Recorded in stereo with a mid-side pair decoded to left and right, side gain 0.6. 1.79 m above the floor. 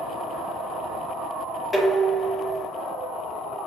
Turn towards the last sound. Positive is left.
turn(degrees=25)